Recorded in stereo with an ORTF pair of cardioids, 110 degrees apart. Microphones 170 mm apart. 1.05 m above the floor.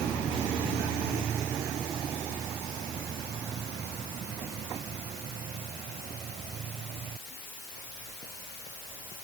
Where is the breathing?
No breathing in this recording.